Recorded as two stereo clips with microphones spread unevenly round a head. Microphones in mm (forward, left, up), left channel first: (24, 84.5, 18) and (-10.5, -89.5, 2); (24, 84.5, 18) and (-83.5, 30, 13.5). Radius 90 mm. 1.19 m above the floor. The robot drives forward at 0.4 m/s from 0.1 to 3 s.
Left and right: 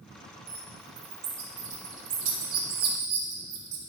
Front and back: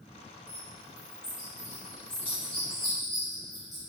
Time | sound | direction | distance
0.5 | a bird | 40° right | 2 m